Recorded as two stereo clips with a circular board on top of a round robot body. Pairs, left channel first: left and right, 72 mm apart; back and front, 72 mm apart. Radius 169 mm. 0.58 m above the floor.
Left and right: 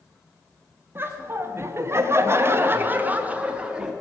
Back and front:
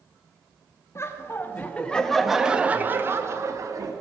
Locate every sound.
0.9 s laughter: 140° right, 1.7 m; by 3.9 s 15° right, 1.8 m